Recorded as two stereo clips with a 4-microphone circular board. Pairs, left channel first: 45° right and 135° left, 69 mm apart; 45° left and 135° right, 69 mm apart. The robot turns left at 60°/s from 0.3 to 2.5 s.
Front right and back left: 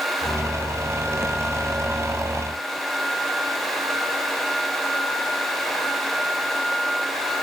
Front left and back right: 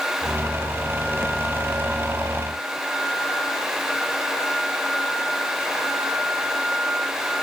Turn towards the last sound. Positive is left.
No sound to turn to.